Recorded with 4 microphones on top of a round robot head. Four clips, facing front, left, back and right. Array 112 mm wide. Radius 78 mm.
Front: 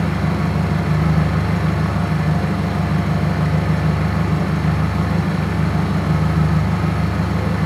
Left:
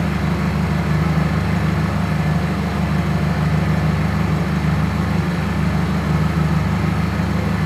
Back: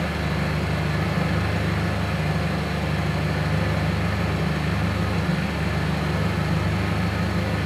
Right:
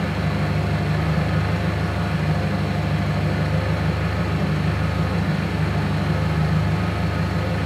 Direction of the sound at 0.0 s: 40° left.